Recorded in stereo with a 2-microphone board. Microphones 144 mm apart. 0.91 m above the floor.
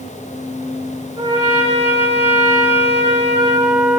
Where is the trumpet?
35° right (ahead or behind), 5 m.